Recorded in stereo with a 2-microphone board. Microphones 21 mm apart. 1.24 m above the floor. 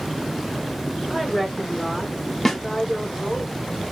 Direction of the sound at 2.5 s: 25° left (ahead or behind).